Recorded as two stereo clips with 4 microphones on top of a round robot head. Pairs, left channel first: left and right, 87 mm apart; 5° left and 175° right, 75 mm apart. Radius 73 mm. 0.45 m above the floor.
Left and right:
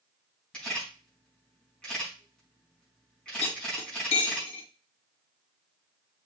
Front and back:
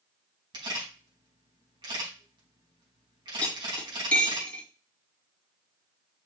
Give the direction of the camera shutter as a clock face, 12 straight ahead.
6 o'clock.